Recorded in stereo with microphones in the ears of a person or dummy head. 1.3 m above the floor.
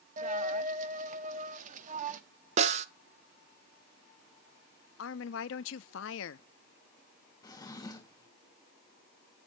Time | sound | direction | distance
0.2 | a dropped coin | 45° right (ahead or behind) | 1.1 m
2.6 | a snare drum | 30° right (ahead or behind) | 0.6 m
5.0 | a woman speaking | 70° left (ahead or behind) | 0.6 m
7.4 | a drawer | 25° left (ahead or behind) | 1.2 m